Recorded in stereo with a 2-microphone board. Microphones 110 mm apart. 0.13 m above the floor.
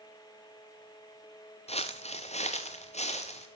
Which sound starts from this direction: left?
Footsteps, at 1.7 s.